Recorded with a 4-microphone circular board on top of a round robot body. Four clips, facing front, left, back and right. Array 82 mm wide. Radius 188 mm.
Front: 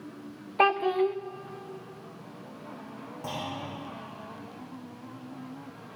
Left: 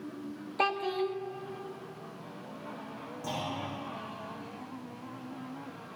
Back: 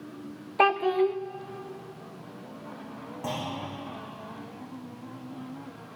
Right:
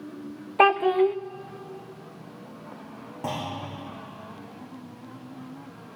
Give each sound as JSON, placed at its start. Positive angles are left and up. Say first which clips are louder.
{"t": 0.6, "sound": "a child speaking", "louder": "right 11 dB, back 1 dB", "azimuth_deg": -90, "distance_m": 0.8}
{"t": 3.2, "sound": "a clunk", "louder": "right 4 dB, back 2 dB", "azimuth_deg": -95, "distance_m": 8.0}